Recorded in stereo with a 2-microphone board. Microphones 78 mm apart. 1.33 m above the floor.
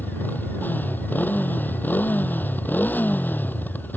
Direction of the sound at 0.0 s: 25° left (ahead or behind).